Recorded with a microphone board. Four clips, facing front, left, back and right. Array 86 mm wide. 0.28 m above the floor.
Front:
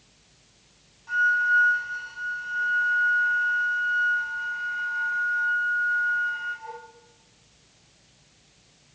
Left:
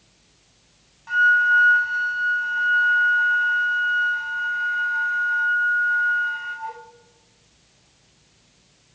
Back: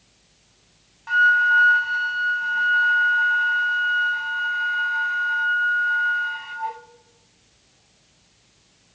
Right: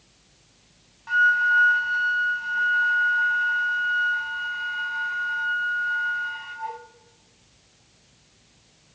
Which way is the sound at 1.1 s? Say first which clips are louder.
Left 2 dB, back 5 dB; 175° right.